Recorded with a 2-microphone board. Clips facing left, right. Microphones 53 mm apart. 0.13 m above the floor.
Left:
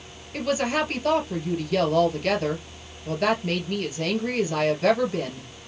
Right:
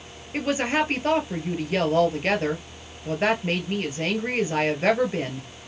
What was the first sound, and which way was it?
A woman speaking, 35° right (ahead or behind).